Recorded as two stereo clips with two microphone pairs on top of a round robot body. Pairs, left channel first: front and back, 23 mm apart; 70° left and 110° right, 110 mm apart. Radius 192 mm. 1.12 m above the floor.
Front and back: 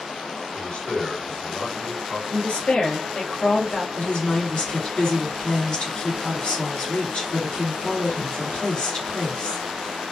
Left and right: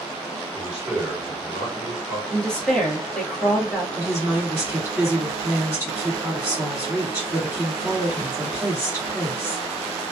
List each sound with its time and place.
0.5 s a man speaking: 35° right, 2 m
2.3 s a woman speaking: 15° right, 1.3 m
4.0 s a woman speaking: 35° right, 2 m